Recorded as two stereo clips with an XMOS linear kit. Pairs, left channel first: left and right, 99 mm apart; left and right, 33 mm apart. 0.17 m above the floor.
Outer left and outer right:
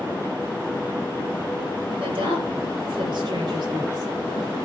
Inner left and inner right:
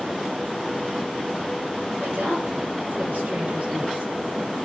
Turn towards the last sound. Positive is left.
turn(degrees=-40)  # may be behind; listen again after turning